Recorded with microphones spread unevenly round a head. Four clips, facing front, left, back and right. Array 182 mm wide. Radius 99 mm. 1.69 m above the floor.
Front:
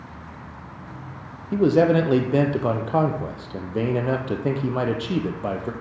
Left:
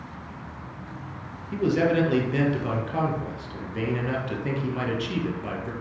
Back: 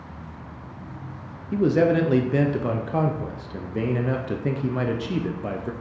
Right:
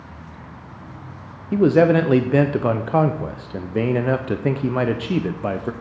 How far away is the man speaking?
About 0.6 m.